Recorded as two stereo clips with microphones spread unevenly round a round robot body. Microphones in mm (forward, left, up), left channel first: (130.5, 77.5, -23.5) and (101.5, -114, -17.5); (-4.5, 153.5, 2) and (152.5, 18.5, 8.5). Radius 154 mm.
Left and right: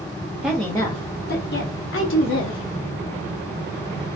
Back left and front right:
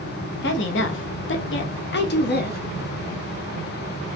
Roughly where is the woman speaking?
Behind.